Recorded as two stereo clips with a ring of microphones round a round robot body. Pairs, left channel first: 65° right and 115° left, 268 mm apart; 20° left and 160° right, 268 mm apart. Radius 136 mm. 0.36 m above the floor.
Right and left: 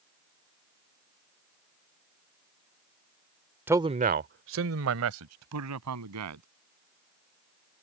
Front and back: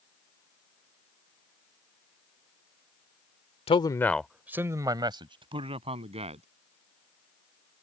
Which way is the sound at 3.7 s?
45° left.